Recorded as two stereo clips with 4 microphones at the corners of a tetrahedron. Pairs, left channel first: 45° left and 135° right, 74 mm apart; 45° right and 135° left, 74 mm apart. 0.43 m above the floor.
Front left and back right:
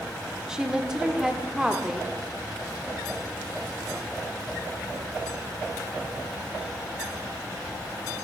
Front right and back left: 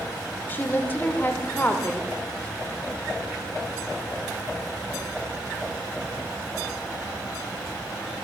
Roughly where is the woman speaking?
Ahead right.